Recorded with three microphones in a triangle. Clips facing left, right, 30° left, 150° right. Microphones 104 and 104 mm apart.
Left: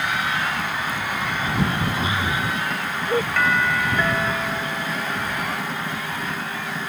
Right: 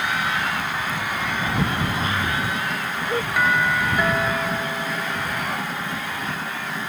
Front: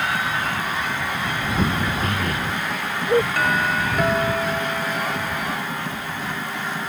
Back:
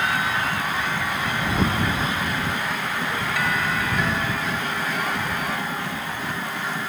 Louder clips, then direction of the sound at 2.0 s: Even, front 1 dB; 15° left.